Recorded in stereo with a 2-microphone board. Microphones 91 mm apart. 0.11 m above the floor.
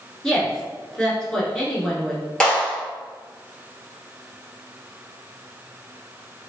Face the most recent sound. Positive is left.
turn(degrees=5)  # may be behind; listen again after turning